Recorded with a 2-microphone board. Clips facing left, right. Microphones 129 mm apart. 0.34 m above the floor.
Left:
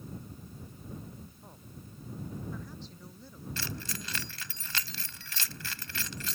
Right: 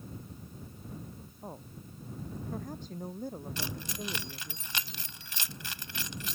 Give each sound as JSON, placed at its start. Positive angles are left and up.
{"t": 1.4, "sound": "a woman speaking", "side_deg": -40}
{"t": 3.6, "sound": "keys jangling", "side_deg": -20}